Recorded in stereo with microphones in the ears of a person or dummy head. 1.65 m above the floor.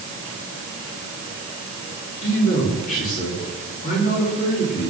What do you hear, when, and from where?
2.2 s a man speaking: 40° left (ahead or behind), 4.5 m